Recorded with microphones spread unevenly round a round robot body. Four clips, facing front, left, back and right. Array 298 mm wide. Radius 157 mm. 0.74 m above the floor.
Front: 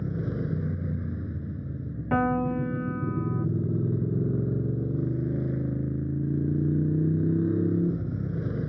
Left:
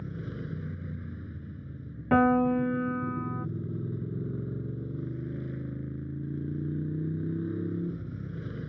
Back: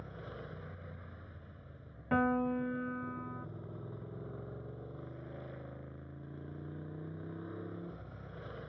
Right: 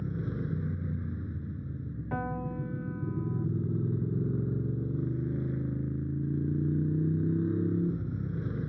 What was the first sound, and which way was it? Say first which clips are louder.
A motorcycle: right 3 dB, front 16 dB; 15° right.